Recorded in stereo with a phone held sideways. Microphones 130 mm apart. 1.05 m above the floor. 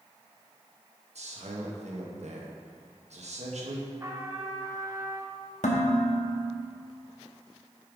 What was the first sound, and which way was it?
A man speaking, 65° right (ahead or behind).